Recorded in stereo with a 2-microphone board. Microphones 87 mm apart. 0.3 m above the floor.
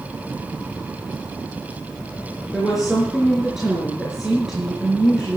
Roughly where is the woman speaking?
Centre.